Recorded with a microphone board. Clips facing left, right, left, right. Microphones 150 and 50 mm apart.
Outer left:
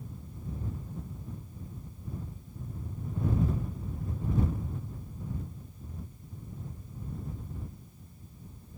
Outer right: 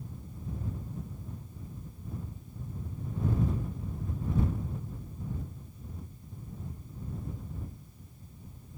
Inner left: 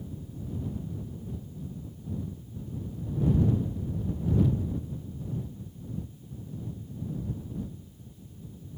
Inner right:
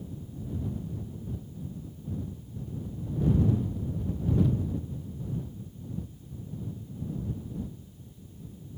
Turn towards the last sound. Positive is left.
No sound to turn to.